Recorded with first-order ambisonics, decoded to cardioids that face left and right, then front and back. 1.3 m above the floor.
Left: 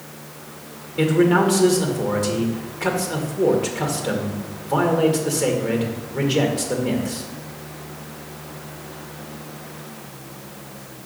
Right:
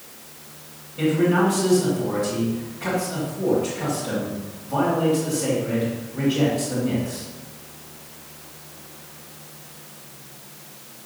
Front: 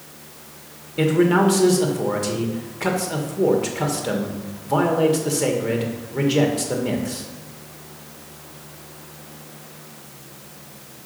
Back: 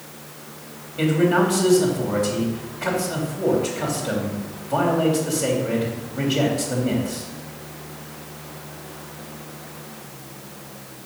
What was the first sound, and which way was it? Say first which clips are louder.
A man speaking: left 3 dB, front 1 dB; 35° left.